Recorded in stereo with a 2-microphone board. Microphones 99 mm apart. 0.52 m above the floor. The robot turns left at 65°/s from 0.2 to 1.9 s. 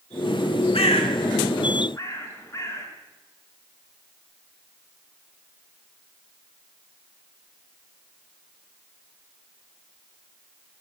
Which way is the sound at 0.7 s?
75° left (ahead or behind).